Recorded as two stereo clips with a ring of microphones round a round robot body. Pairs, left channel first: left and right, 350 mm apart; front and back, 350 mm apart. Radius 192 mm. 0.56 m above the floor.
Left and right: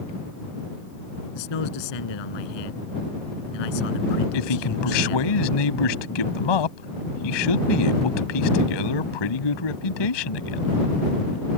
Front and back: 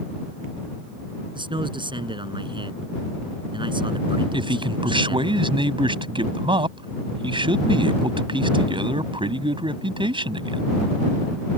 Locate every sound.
1.4 s a man speaking: 105° left
4.3 s a man speaking: 105° left